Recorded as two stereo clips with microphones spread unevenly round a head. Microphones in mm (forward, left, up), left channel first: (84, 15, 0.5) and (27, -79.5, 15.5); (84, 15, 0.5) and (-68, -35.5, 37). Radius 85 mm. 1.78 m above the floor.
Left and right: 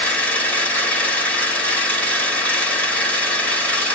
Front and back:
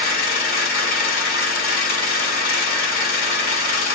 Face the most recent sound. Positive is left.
turn(degrees=-20)